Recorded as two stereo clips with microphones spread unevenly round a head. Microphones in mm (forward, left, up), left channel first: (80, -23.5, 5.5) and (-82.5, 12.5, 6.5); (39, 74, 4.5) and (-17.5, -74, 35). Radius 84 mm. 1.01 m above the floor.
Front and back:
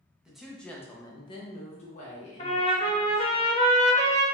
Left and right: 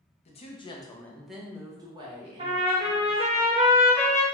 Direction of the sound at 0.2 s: 85° left.